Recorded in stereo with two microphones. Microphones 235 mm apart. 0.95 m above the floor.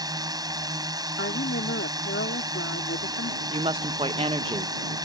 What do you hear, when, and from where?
0.0 s a drone: 15° right (ahead or behind)
1.2 s a woman speaking: 60° left (ahead or behind)
3.5 s a woman speaking: 25° right (ahead or behind)